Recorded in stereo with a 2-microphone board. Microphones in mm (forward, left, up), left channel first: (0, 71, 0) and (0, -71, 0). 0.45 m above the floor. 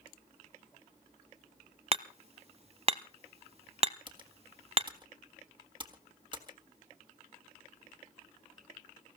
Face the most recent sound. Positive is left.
turn(degrees=-30)  # may be behind; listen again after turning